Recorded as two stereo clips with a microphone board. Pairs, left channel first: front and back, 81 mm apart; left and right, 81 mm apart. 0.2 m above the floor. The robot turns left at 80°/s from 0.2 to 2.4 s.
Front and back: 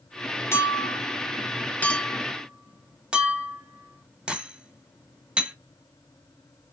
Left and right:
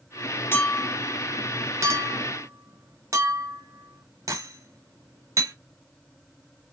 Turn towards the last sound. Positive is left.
turn(degrees=-110)